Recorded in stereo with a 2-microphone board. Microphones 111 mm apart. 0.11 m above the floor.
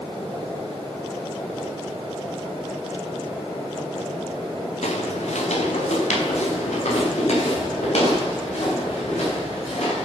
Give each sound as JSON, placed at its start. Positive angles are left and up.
{"t": 4.8, "sound": "footsteps", "side_deg": 90, "distance_m": 2.5}